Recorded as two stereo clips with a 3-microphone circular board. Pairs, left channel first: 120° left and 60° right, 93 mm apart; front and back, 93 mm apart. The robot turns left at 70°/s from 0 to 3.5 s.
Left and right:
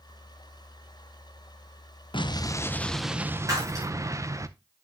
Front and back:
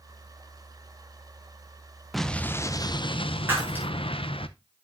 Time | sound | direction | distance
2.1 | an explosion | 90° left | 0.6 m
3.5 | breaking glass | 110° right | 5.5 m